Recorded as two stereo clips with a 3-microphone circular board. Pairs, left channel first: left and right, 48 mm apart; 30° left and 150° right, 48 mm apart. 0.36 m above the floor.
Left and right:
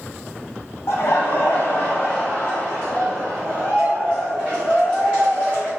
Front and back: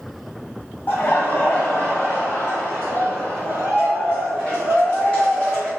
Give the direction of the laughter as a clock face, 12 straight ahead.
10 o'clock.